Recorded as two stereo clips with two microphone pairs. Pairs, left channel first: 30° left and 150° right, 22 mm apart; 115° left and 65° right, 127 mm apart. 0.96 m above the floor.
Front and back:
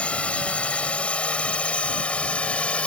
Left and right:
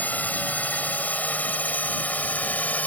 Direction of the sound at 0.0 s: 40° left.